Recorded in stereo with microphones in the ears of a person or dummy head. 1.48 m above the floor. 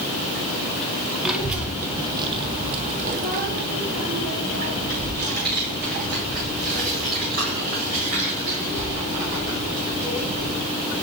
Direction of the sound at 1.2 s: Centre (ahead or behind).